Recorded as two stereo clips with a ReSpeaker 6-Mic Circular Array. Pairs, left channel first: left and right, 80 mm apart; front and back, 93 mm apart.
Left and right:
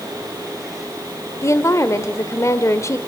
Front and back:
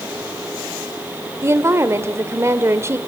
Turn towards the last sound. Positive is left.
turn(degrees=130)